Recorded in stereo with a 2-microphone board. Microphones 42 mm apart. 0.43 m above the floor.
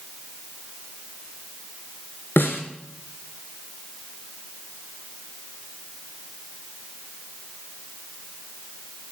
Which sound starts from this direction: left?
A snare drum, at 2.4 s.